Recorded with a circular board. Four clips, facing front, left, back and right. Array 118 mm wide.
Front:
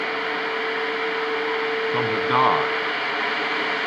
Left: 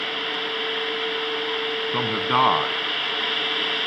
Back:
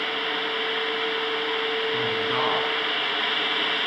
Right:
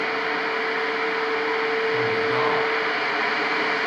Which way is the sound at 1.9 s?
50° left.